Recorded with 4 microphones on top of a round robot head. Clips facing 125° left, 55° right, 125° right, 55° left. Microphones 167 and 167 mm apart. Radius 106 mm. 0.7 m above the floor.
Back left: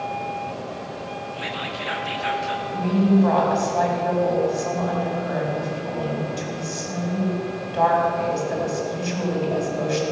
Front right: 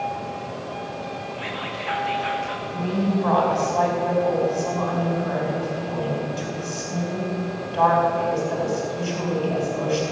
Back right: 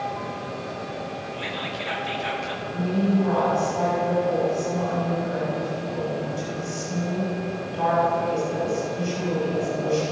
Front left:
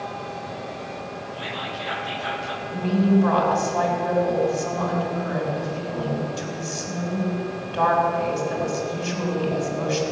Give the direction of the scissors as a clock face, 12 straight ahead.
No scissors in this recording.